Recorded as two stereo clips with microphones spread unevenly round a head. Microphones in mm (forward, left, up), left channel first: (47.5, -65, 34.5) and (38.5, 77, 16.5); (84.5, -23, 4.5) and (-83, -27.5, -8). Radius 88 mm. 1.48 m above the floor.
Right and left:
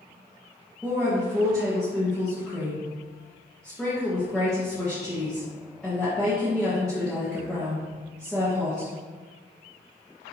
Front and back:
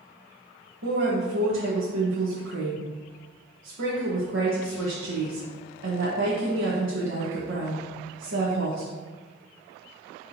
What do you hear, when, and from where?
0.8 s a woman speaking: 175° right, 1.5 m